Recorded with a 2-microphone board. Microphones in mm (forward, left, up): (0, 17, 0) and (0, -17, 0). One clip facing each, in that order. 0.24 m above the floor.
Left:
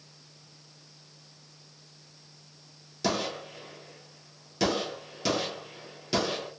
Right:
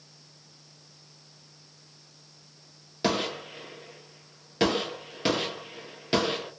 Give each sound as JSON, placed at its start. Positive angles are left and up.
{"t": 3.0, "sound": "a gunshot", "side_deg": -30, "distance_m": 0.9}